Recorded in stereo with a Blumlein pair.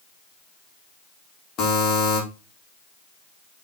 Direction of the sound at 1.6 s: 30° left.